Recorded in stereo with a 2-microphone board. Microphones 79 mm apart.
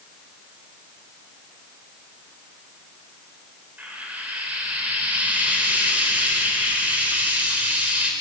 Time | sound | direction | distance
3.8 | frying | 20° right (ahead or behind) | 4 m